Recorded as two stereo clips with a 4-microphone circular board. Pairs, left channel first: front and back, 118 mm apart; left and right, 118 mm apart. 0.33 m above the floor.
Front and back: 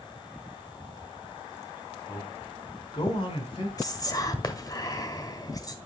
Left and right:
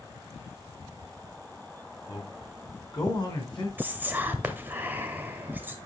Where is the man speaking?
45° left, 1.8 m.